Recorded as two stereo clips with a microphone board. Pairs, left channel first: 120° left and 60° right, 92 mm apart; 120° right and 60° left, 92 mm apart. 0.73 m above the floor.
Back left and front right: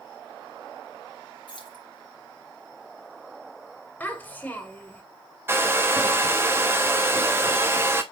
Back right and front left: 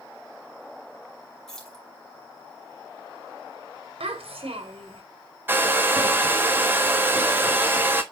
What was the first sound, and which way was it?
Keys jangling, 155° left.